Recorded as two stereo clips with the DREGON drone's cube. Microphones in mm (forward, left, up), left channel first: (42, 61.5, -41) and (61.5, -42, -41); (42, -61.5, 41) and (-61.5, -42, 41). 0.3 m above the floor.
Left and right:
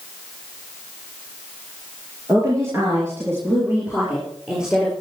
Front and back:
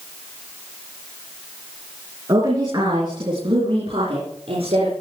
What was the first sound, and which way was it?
A woman speaking, 135° right.